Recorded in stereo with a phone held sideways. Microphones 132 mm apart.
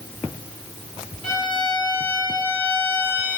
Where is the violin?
40° right (ahead or behind), 1.0 m.